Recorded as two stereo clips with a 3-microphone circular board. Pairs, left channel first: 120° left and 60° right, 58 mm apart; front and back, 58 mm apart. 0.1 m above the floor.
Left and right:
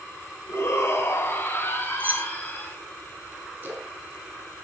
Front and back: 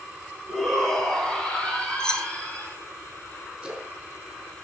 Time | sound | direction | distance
0.5 | a shout | 80° left | 2.5 m
2.0 | keys jangling | 65° right | 0.9 m
3.6 | a splash | 105° right | 2.5 m